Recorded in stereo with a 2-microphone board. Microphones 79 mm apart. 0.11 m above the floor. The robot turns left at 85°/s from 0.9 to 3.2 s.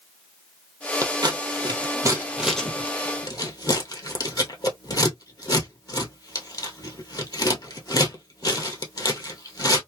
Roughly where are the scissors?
Right.